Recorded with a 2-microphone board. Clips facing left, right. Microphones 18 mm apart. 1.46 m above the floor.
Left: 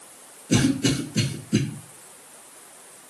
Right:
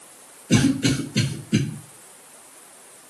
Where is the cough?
85° right, 1.5 m.